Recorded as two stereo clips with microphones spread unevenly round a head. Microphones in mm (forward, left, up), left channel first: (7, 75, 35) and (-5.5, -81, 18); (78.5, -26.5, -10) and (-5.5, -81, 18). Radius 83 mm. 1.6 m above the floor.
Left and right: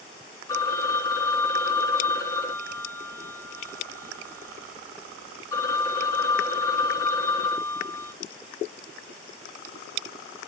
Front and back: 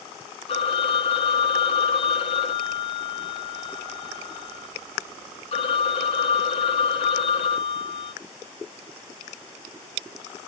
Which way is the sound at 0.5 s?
30° left.